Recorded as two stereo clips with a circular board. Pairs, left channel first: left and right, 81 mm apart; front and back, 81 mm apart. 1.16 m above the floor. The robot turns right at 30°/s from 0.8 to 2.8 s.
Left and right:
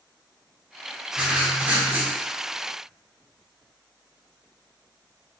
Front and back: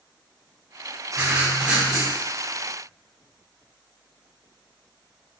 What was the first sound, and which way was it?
Writing, 140° right.